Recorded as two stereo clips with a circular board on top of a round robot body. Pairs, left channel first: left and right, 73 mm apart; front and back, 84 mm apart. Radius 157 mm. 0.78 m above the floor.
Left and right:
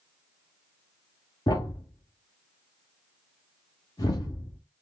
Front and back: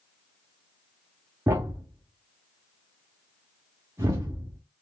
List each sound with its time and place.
1.5 s a thud: 125° left, 0.5 m